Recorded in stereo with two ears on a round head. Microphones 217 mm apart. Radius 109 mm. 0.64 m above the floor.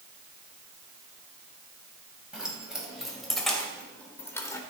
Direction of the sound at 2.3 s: 5° right (ahead or behind).